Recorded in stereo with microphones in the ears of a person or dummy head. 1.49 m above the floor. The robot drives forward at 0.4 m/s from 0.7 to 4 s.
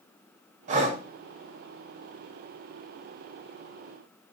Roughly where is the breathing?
Right.